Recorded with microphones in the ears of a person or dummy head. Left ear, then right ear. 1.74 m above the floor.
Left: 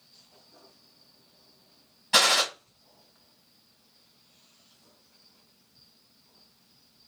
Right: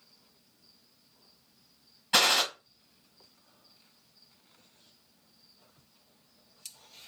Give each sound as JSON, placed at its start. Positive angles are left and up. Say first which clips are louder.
{"t": 2.1, "sound": "a gunshot", "louder": "left 3 dB", "side_deg": 5, "distance_m": 1.3}